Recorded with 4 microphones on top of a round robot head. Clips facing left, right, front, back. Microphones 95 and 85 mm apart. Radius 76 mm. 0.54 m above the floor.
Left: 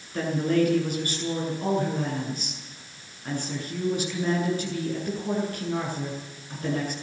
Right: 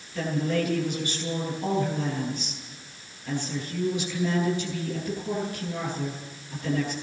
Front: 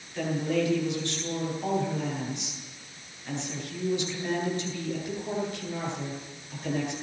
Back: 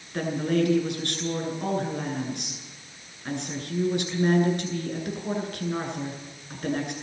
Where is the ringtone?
I don't hear a ringtone.